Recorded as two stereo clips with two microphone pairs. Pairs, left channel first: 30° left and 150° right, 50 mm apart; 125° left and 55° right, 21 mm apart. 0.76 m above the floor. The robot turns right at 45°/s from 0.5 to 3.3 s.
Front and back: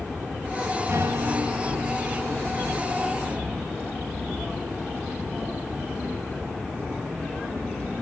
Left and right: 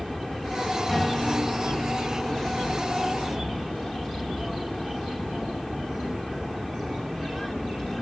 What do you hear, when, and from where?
0.9 s a guitar: 170° right, 5 m; by 3.8 s 60° right, 5 m